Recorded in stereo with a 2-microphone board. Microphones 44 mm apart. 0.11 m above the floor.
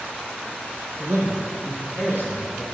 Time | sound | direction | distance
1.0 | a man speaking | 70° right (ahead or behind) | 3 m